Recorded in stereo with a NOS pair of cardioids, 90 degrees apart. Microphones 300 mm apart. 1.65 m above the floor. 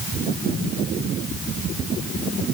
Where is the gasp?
I don't hear a gasp.